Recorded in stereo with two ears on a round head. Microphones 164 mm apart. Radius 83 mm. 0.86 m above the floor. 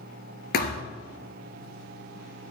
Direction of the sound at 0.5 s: 55° left (ahead or behind).